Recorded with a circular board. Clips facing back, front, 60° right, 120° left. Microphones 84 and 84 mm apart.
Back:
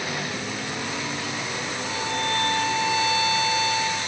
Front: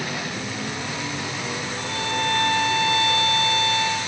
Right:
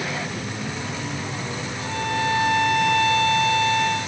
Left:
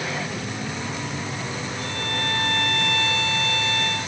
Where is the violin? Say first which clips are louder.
Front 2 dB, right 8 dB; 20° left, 3.5 m.